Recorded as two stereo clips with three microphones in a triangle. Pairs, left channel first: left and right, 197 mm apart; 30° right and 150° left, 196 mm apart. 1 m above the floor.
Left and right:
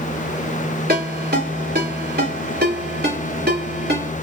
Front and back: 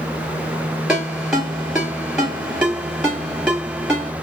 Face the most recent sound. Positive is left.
turn(degrees=-125)